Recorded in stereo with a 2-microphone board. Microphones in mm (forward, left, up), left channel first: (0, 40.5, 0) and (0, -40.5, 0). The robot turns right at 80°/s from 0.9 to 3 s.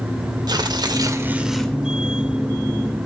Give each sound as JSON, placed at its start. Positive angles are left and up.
{"t": 0.5, "sound": "tearing paper", "azimuth_deg": -55, "distance_m": 1.5}